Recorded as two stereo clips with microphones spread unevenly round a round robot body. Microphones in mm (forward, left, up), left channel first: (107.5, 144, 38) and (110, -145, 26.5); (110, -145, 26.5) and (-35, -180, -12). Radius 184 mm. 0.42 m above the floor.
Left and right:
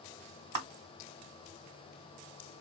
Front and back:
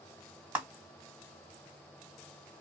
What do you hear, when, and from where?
0.6 s a clap: 95° right, 1.6 m